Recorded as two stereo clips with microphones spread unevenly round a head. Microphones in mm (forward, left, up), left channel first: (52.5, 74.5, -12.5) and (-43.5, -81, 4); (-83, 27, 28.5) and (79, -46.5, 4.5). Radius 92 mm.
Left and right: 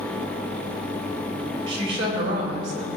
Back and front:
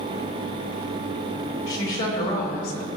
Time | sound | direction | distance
1.7 | a woman speaking | 175° left | 4.5 m